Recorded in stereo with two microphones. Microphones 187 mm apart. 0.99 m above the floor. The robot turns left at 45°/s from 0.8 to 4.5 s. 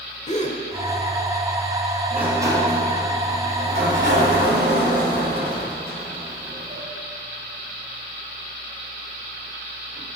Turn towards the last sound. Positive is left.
turn(degrees=-110)